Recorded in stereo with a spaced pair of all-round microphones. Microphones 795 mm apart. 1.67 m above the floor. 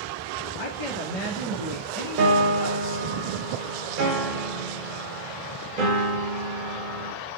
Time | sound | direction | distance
0.6 | a woman speaking | 75° left (ahead or behind) | 2.5 m
2.2 | a piano | 85° right | 0.9 m